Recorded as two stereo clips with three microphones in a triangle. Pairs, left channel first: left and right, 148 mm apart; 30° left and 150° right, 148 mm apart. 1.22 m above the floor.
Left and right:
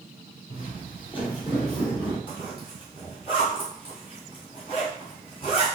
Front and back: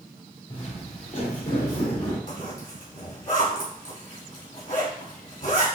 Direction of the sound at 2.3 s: 40° left.